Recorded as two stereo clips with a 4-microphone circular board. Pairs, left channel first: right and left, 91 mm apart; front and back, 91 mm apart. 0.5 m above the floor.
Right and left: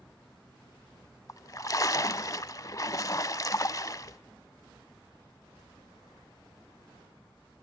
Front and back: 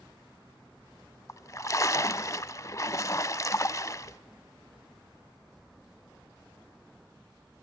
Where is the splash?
45° right, 0.5 m.